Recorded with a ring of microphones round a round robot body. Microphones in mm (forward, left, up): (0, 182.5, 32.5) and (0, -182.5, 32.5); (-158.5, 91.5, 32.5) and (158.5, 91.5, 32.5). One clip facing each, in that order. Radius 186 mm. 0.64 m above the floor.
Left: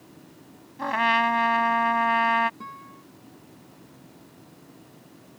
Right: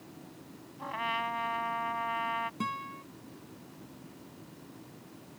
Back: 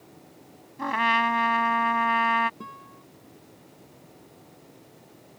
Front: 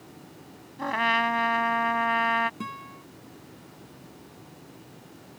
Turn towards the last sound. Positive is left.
turn(degrees=-60)